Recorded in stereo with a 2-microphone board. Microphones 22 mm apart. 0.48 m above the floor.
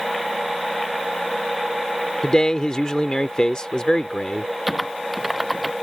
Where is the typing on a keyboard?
10° right (ahead or behind).